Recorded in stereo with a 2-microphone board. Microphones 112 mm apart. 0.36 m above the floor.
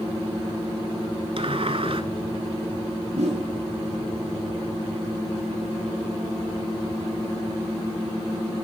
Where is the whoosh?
75° right (ahead or behind), 4 m.